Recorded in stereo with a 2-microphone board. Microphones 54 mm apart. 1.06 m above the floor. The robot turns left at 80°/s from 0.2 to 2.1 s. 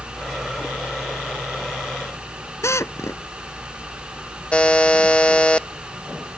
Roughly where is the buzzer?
Centre.